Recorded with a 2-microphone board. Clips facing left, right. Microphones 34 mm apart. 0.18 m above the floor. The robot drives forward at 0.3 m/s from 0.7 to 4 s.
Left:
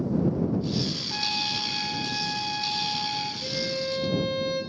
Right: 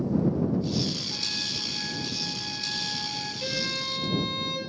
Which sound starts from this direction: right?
A violin, at 3.4 s.